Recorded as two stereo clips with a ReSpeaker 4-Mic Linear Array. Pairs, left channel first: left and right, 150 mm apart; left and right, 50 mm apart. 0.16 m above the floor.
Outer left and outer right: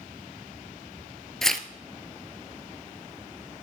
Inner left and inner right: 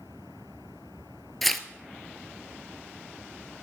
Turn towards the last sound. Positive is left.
turn(degrees=5)  # may be behind; listen again after turning